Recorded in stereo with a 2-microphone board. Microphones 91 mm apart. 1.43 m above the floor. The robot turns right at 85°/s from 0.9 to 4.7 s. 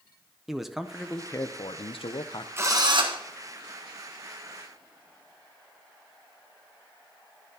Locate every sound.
0.5 s a man speaking: straight ahead, 0.5 m; by 2.5 s 130° left, 0.5 m
2.6 s a drill: 155° right, 1.1 m; by 3.2 s 100° right, 1.1 m